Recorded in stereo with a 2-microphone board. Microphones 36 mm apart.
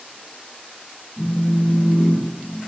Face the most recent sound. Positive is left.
turn(degrees=70)  # may be behind; listen again after turning